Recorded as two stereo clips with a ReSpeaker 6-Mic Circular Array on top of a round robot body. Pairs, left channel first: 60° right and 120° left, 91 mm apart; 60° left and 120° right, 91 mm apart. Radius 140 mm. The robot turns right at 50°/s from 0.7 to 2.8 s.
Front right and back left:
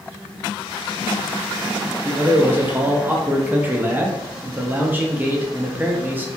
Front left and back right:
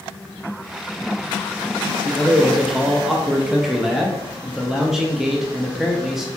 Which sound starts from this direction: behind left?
A man speaking, at 2.0 s.